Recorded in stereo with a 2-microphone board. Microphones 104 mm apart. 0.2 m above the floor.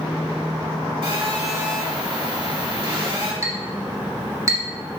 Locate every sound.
1.0 s a phone buzzing: 55° right (ahead or behind), 2.5 m
3.4 s a clink: 30° right (ahead or behind), 1.1 m